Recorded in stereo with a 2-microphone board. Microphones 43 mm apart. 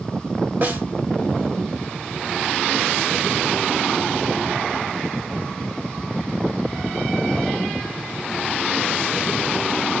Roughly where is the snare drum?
Right.